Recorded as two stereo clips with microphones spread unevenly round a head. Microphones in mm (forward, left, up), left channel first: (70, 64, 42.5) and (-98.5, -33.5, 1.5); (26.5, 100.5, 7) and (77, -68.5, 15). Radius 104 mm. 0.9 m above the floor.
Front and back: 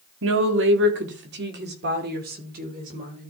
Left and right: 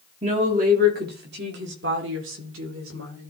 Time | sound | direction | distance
0.2 | a woman speaking | 135° right | 2.0 m